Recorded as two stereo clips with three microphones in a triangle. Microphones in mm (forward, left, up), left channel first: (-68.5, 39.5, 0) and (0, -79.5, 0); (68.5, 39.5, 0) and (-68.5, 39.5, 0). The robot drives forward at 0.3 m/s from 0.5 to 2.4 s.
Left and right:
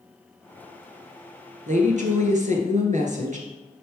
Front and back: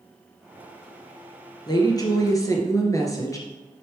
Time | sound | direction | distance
1.7 | a woman speaking | 55° right | 2 m